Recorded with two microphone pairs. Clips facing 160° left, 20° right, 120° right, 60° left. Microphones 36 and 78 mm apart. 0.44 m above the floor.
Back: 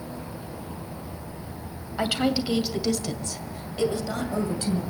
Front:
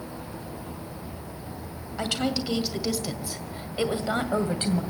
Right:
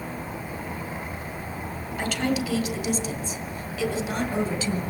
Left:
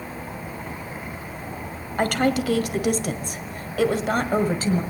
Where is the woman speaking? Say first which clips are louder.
Back 3 dB, left 5 dB; 90° left, 1.9 m; by 4.8 s 20° left, 2 m.